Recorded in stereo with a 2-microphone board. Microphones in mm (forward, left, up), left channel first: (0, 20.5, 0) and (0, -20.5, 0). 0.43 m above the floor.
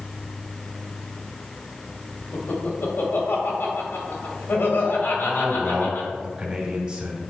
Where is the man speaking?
25° right (ahead or behind), 3 m.